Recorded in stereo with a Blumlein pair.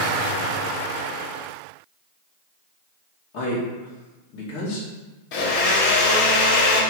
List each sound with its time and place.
3.3 s a man speaking: 45° left, 2.5 m
5.3 s a blender: 45° left, 1.8 m